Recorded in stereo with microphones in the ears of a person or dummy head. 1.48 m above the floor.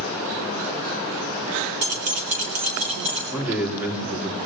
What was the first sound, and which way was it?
Keys jangling, 50° right (ahead or behind).